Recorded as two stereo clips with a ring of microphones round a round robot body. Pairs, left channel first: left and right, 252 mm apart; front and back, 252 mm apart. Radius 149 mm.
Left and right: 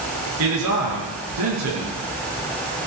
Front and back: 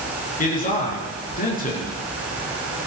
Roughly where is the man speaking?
Ahead right.